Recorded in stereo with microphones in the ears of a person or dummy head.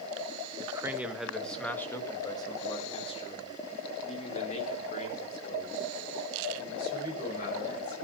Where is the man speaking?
15° right (ahead or behind), 1.8 m; by 8.0 s 55° left (ahead or behind), 7.5 m.